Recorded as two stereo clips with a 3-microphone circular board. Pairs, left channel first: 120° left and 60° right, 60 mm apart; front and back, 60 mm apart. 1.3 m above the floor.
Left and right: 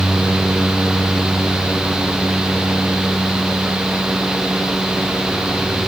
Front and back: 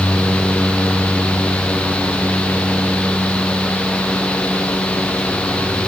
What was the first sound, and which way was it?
Only background noise.